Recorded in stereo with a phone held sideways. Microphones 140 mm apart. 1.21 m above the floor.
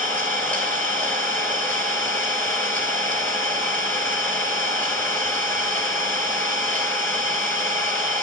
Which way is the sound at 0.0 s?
15° left (ahead or behind).